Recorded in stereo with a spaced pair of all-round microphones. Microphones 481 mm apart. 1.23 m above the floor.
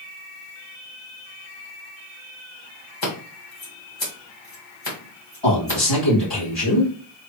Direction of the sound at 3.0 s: 65° left (ahead or behind).